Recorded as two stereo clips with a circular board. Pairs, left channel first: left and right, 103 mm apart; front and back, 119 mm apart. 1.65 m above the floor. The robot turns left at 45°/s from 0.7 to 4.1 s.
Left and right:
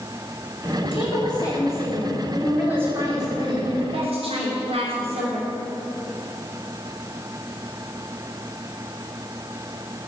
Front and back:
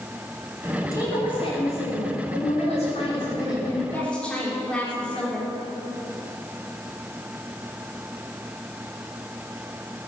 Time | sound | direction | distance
0.8 | a woman speaking | 65° left | 5 m